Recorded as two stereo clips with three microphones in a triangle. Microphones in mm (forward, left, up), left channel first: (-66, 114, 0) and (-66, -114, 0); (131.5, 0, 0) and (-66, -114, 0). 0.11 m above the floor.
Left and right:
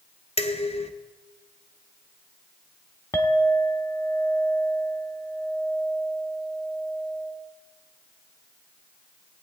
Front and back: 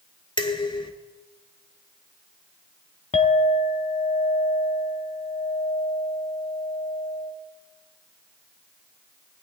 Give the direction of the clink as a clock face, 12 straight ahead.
11 o'clock.